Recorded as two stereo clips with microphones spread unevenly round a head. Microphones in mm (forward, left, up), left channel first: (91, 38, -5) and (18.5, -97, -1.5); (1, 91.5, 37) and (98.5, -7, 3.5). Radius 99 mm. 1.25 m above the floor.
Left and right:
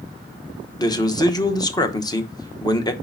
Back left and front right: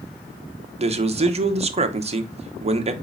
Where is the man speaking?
5° right, 0.9 m.